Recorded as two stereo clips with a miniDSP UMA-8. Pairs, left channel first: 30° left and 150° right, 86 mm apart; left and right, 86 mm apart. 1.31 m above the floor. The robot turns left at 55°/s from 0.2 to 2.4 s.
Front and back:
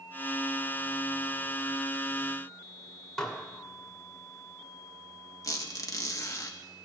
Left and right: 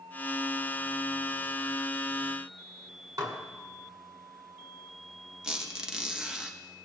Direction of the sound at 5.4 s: 10° right.